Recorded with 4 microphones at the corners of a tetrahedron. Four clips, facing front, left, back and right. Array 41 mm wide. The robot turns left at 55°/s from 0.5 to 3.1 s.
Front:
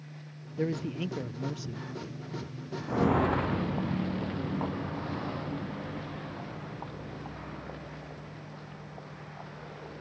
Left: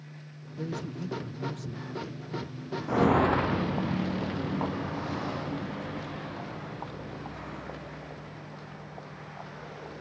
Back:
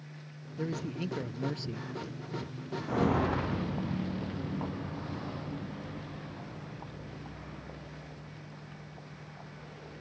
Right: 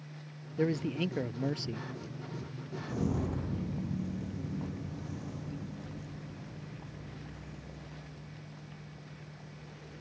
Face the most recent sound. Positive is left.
turn(degrees=65)